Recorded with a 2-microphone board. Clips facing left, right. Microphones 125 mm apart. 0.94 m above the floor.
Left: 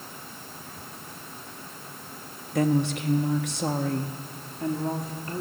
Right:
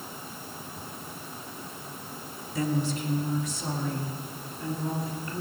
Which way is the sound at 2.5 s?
60° left (ahead or behind).